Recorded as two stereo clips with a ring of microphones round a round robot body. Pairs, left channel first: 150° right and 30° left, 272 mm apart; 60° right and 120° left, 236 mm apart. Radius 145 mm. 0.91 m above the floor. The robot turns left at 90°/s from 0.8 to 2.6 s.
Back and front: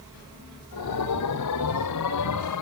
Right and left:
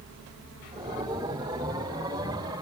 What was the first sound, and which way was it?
Only background noise.